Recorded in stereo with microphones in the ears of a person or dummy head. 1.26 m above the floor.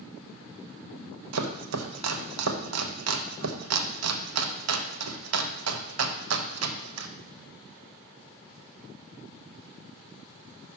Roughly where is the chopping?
Right.